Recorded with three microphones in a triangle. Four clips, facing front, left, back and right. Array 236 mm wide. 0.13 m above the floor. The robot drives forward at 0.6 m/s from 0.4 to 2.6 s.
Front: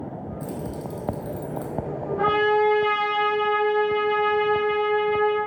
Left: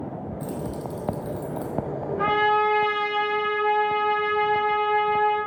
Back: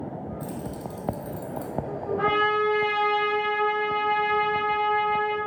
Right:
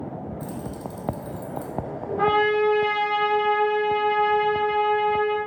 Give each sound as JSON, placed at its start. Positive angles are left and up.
{"t": 0.4, "sound": "keys jangling", "azimuth_deg": 70, "distance_m": 3.0}
{"t": 2.2, "sound": "a trumpet", "azimuth_deg": -90, "distance_m": 5.0}